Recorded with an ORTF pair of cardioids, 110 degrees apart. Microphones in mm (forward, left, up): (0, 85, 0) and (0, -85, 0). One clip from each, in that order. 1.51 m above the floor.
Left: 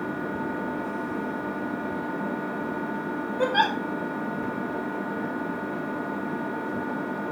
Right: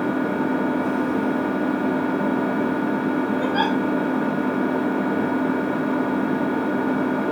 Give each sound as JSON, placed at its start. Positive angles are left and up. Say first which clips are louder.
{"t": 0.0, "sound": "an engine running", "louder": "right 7 dB", "azimuth_deg": -45, "distance_m": 0.9}
{"t": 3.4, "sound": "a giggle", "louder": "left 2 dB", "azimuth_deg": 30, "distance_m": 2.0}